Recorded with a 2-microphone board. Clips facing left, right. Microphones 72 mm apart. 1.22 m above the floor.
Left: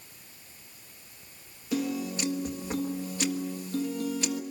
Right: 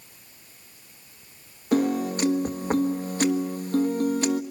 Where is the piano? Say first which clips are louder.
Right 7 dB; 50° right (ahead or behind), 1.5 m.